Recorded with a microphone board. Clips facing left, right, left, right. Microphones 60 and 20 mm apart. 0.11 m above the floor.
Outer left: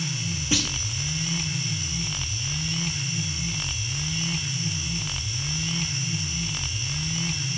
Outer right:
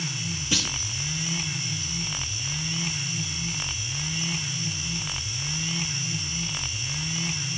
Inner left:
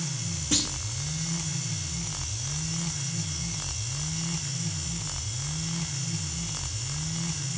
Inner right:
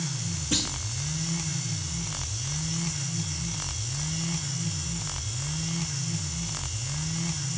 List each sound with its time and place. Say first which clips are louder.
0.5 s a clunk: outer left 2 dB, inner left 1 dB; 25° left (ahead or behind), 3 m